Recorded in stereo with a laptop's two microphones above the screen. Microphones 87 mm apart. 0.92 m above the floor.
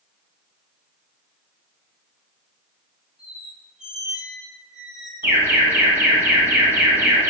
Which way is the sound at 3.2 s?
10° right (ahead or behind).